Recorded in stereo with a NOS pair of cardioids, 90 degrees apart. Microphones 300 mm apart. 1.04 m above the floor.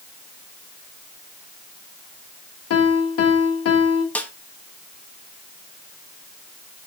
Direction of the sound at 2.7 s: 55° left.